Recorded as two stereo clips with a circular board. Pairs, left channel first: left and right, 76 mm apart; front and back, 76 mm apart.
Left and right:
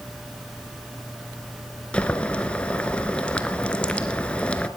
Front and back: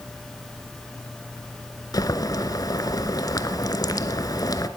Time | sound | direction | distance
1.9 | boiling | 20° left | 1.3 m